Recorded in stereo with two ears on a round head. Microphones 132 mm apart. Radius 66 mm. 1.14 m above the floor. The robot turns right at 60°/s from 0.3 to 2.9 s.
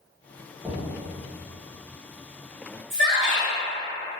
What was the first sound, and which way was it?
Knocking, 15° right (ahead or behind).